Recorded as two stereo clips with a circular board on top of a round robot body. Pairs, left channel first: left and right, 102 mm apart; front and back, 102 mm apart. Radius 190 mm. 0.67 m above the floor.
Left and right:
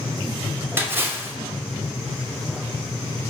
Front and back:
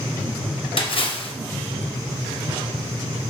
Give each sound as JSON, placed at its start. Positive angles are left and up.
{"t": 0.8, "sound": "a splash", "azimuth_deg": -25, "distance_m": 1.8}